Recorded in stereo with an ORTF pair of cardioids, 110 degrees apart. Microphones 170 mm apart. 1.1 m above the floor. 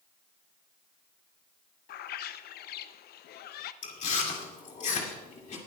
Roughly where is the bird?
Ahead left.